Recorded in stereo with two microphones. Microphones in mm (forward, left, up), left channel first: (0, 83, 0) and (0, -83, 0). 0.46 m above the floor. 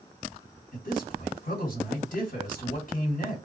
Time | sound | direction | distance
0.7 | a man speaking | 55° left (ahead or behind) | 2.5 m